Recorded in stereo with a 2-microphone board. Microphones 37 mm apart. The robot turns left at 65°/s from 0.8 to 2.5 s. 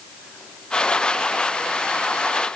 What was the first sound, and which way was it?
Only background noise.